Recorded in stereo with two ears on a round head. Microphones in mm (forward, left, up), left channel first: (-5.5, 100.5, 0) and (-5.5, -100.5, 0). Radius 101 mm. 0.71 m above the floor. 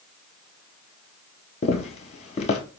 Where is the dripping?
I don't hear dripping.